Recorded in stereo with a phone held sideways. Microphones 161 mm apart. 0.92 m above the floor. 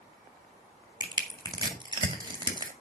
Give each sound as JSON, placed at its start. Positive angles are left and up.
{"t": 1.0, "sound": "crushing", "side_deg": -30, "distance_m": 1.8}